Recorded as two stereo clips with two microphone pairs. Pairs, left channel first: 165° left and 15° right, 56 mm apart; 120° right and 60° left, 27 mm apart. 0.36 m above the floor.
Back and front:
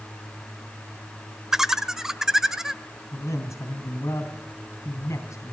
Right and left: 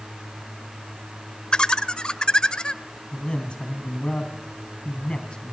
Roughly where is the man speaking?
Behind.